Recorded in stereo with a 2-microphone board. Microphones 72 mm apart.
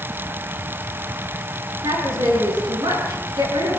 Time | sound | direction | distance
1.8 | a woman speaking | 75° right (ahead or behind) | 9 m